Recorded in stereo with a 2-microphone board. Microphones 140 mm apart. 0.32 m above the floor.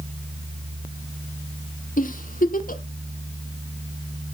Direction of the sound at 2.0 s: 80° left.